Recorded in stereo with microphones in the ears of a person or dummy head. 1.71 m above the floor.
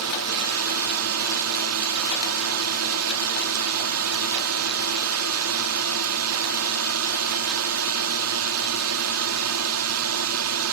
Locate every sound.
0.0 s a drone: 80° right